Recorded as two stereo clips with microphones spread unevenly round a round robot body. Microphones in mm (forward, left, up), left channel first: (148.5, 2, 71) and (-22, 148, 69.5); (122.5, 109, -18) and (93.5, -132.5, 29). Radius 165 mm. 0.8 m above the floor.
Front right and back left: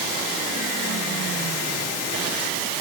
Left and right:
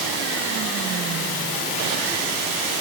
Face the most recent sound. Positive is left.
No sound to turn to.